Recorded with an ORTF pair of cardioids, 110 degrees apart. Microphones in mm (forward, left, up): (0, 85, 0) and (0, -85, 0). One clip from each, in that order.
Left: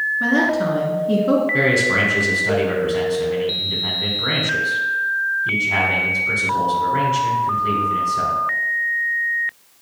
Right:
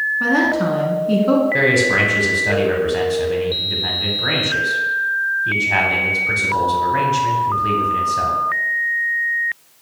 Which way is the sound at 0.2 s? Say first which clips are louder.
Right 1 dB; 10° right.